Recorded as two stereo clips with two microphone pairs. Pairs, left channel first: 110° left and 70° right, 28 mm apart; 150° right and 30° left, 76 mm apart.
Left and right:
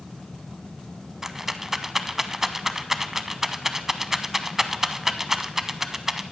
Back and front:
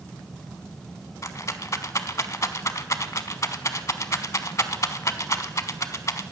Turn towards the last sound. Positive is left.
turn(degrees=-140)